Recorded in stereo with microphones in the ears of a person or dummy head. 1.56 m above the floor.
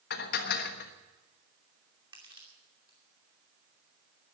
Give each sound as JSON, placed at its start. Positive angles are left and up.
{"t": 0.1, "sound": "dishes clattering", "side_deg": 60, "distance_m": 1.3}
{"t": 2.1, "sound": "crushing", "side_deg": -20, "distance_m": 2.5}